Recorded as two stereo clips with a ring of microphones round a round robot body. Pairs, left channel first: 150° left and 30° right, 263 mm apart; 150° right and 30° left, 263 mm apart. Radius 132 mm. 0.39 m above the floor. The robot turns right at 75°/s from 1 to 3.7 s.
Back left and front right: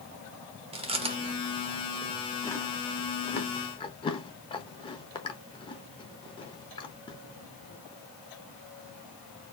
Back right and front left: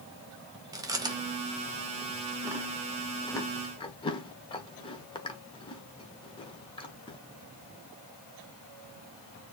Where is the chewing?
20° right, 0.9 m; by 7.2 s straight behind, 0.9 m.